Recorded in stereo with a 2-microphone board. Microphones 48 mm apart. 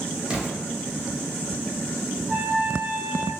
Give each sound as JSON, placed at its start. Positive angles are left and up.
{"t": 0.3, "sound": "an explosion", "side_deg": -20, "distance_m": 0.8}
{"t": 2.3, "sound": "a trumpet", "side_deg": 0, "distance_m": 1.1}